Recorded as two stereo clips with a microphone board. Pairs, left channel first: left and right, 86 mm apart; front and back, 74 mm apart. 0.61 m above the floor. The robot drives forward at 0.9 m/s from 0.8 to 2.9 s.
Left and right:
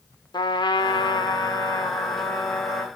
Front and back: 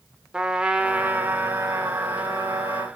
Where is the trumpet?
100° left, 1.2 m; by 2.9 s 150° left, 2.5 m.